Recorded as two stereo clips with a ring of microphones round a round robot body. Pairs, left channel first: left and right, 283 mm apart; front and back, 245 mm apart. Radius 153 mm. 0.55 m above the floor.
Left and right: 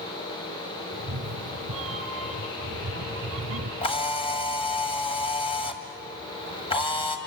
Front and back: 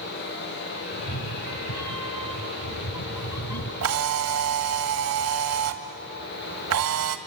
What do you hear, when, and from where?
0.9 s a cat meowing: 40° right, 1.1 m
3.8 s a camera shutter: 160° left, 2 m